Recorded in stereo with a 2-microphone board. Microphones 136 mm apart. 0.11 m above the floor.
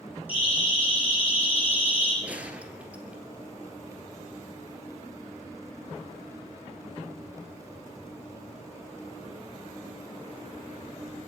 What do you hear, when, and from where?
0.3 s a siren: 10° right (ahead or behind), 9 m; by 2.1 s 15° right (ahead or behind), 7 m
2.2 s a gunshot: 10° right (ahead or behind), 1.7 m